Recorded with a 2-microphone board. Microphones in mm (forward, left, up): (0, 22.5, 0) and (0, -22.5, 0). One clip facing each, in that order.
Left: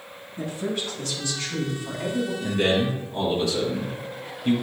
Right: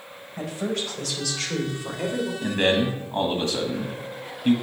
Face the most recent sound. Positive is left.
turn(degrees=-45)  # may be behind; listen again after turning